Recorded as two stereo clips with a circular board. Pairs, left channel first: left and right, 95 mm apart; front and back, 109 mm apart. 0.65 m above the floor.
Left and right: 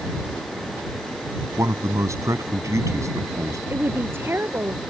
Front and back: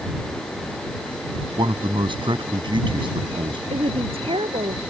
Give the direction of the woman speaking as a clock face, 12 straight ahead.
5 o'clock.